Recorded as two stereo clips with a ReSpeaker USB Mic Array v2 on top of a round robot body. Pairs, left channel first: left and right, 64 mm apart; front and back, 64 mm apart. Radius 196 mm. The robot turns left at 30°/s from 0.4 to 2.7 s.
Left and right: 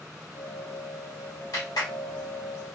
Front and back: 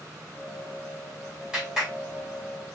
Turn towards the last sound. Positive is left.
turn(degrees=65)